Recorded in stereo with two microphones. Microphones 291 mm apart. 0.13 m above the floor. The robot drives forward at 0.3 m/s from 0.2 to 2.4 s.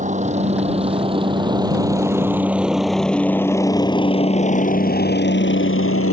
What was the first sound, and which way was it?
A helicopter, 25° right (ahead or behind).